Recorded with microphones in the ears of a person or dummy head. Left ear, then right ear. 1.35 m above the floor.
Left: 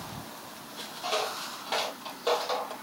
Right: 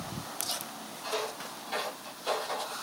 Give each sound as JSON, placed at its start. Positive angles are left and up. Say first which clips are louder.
{"t": 1.0, "sound": "footsteps", "louder": "left 4 dB", "side_deg": 45, "distance_m": 2.0}